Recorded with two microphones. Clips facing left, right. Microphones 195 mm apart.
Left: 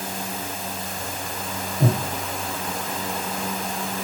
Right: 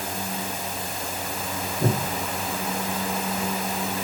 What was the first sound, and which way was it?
Breathing, 60° left (ahead or behind).